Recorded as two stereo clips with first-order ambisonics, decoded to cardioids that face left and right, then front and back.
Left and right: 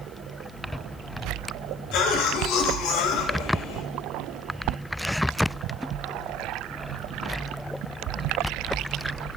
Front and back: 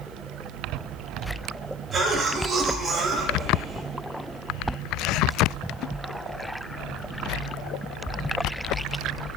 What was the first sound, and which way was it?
A cough, 110° left.